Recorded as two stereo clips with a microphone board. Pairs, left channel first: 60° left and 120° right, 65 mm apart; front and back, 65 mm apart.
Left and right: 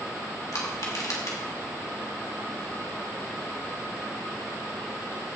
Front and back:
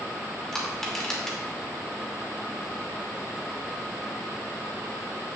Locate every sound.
0.5 s crushing: 85° left, 2.5 m